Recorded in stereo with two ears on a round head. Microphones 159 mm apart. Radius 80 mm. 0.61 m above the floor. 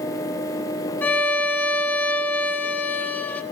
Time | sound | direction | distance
1.0 | a violin | 10° left (ahead or behind) | 1.0 m